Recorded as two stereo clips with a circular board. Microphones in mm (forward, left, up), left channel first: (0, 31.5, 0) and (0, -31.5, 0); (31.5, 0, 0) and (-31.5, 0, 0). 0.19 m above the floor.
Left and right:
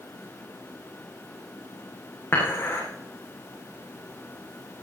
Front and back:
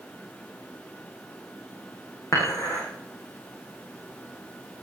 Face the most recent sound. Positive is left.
turn(degrees=35)